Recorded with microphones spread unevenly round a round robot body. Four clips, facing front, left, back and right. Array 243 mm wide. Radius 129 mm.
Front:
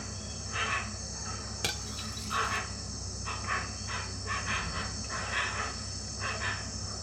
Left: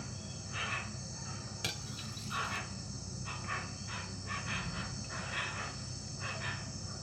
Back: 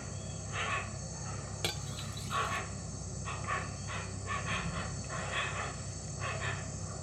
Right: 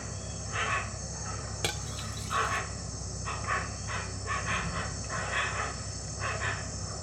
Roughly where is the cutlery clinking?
Right.